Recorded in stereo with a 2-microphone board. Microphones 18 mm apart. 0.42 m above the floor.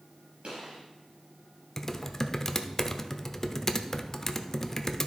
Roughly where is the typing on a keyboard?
Centre.